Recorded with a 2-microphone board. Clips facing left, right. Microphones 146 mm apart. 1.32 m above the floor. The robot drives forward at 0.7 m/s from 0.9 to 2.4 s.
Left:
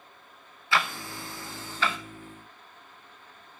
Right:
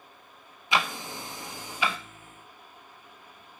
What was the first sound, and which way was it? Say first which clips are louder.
Ticking: right 1 dB; 20° right (ahead or behind).